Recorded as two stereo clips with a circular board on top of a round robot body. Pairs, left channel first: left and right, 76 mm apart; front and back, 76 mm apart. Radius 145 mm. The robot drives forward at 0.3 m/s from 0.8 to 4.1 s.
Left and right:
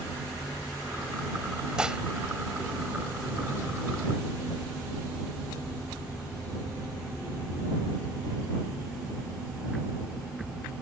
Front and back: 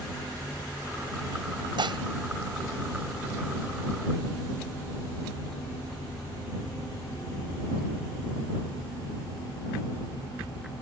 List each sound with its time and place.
1.8 s dishes clattering: 170° right